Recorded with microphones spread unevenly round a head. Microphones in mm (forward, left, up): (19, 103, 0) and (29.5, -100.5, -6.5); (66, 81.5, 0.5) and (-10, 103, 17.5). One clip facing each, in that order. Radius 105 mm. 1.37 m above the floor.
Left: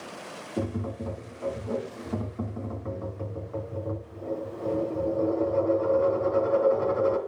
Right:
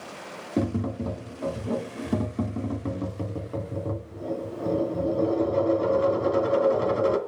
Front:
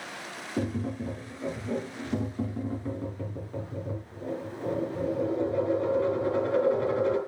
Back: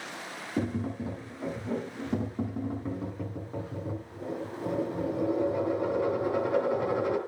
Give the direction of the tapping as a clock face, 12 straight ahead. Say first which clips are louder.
Right 5 dB, even; 4 o'clock.